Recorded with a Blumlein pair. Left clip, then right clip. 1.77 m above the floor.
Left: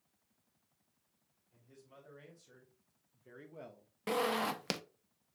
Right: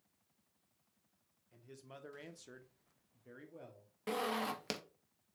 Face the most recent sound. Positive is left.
turn(degrees=15)